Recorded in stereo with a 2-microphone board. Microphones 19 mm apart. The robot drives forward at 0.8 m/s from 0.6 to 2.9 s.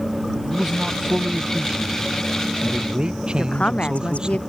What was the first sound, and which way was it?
A man speaking, 30° right (ahead or behind).